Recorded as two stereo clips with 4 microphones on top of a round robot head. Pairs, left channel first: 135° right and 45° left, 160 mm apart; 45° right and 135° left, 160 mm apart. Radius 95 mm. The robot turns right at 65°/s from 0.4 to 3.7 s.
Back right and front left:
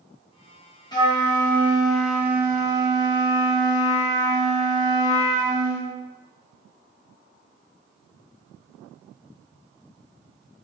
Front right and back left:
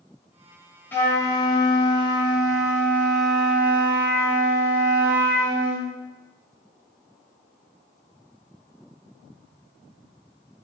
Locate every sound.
0.9 s a flute: 110° right, 1.4 m; by 5.9 s 70° left, 1.4 m